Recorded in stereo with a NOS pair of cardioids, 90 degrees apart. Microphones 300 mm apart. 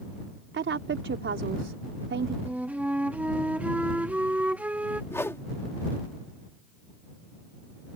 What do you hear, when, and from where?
0.5 s a woman speaking: 40° right
2.5 s a flute: 5° right
5.1 s a whoosh: 10° left